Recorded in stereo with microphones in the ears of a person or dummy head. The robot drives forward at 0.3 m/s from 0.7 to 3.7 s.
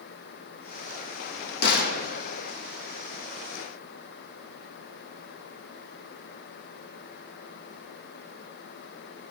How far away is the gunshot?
About 0.5 m.